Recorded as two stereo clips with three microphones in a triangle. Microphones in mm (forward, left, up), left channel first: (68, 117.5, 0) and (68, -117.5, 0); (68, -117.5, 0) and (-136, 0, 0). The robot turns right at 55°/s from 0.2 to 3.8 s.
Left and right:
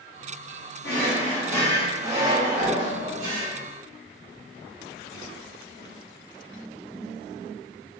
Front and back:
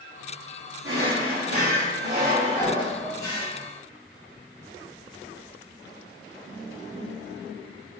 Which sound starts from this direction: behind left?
A drawer, at 0.8 s.